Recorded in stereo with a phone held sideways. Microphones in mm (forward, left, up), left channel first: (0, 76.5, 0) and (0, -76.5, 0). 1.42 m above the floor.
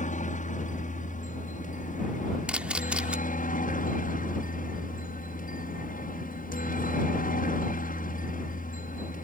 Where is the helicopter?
55° left (ahead or behind); by 9.2 s 65° left (ahead or behind).